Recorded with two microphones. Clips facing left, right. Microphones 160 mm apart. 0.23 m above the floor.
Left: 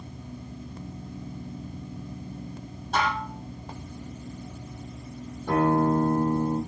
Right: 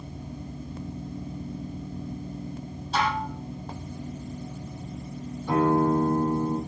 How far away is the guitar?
About 9.5 m.